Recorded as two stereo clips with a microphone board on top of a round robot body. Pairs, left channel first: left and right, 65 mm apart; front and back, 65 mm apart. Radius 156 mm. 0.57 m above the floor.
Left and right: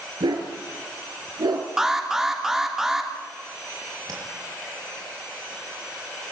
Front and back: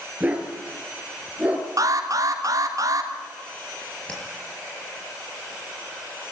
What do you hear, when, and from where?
0.2 s a dog barking: 110° right, 3 m
1.8 s an alarm: 175° right, 3 m
4.1 s tapping: 70° right, 5.5 m